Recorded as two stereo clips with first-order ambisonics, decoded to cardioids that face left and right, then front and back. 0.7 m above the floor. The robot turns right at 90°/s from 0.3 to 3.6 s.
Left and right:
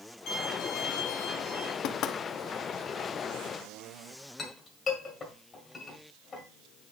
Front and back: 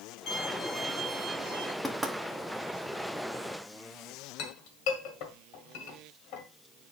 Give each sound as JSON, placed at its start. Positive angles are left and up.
{"t": 0.3, "sound": "a violin", "azimuth_deg": 45, "distance_m": 3.0}
{"t": 1.8, "sound": "knocking", "azimuth_deg": 90, "distance_m": 0.8}
{"t": 4.4, "sound": "a clink", "azimuth_deg": 20, "distance_m": 1.7}